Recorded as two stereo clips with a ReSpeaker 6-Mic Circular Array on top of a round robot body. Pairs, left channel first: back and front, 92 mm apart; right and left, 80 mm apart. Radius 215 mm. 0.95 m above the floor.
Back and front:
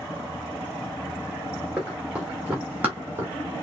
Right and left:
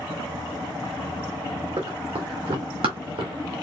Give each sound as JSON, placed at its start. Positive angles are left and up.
{"t": 1.8, "sound": "running footsteps", "azimuth_deg": 80, "distance_m": 3.0}